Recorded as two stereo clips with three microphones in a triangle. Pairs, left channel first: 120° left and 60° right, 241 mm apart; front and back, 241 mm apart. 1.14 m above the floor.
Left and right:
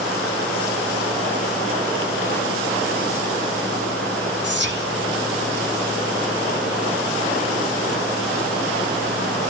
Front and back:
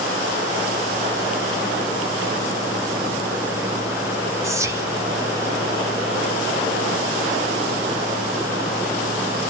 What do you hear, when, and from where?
4.4 s whispering: 100° right, 2.5 m